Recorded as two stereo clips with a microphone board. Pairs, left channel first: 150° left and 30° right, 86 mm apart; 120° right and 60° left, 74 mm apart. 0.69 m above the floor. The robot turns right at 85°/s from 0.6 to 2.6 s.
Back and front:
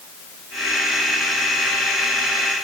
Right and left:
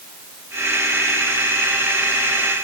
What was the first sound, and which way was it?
Only background noise.